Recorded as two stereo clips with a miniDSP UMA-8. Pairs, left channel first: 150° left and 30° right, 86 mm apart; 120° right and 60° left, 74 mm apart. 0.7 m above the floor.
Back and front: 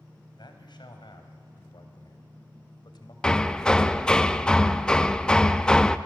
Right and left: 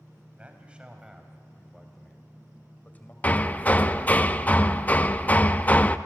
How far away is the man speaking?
About 3.5 m.